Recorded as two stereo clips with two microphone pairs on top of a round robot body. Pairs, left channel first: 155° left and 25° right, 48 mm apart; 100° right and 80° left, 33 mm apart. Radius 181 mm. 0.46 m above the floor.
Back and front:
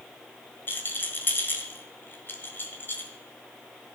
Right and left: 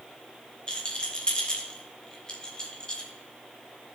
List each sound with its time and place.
0.7 s a rattle: 160° right, 1.7 m